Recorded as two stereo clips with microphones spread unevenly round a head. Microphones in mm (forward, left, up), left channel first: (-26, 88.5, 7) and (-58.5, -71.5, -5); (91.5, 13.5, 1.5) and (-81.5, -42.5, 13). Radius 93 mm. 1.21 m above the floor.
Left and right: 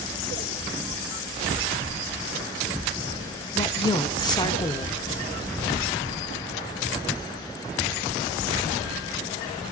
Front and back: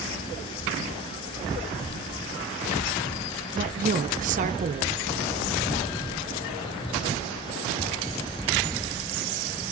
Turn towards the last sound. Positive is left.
turn(degrees=145)